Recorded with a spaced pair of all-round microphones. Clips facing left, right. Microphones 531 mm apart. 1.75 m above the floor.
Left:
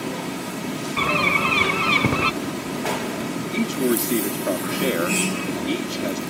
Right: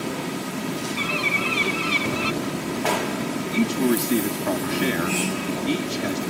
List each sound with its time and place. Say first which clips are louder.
1.0 s a bird: left 3 dB; 75° left (ahead or behind)
3.5 s a man speaking: right 1 dB; 15° right (ahead or behind)